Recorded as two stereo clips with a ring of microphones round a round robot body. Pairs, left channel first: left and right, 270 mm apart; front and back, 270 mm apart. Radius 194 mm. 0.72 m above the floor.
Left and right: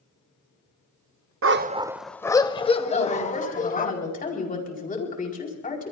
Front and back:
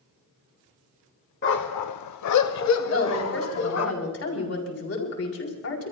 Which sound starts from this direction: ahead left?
A woman speaking, at 2.9 s.